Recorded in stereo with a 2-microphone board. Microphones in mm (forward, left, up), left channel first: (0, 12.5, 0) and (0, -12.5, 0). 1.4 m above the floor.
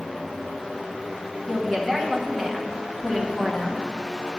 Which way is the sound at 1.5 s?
15° left (ahead or behind).